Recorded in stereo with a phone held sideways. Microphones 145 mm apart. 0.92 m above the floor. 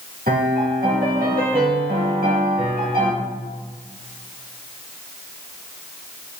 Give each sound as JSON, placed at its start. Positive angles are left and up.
{"t": 0.3, "sound": "a piano", "side_deg": -75, "distance_m": 1.3}